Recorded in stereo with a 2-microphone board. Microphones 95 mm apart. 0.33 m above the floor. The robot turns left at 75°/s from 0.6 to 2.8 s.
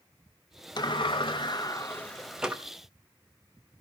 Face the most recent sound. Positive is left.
turn(degrees=-35)